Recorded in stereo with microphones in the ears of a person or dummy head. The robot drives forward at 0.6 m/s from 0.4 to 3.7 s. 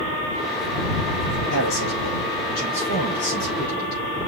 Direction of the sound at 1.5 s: 70° left (ahead or behind).